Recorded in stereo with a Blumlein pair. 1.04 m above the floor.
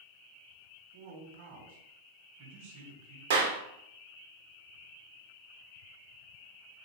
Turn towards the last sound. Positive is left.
turn(degrees=-60)